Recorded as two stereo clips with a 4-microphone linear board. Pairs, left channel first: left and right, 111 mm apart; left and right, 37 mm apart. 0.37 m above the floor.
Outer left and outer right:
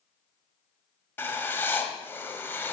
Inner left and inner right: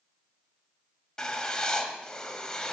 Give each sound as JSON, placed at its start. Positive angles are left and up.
{"t": 1.2, "sound": "writing", "side_deg": 20, "distance_m": 1.4}